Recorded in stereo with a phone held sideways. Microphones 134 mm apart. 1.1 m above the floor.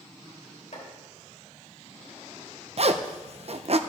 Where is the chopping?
60° left (ahead or behind), 3.5 m.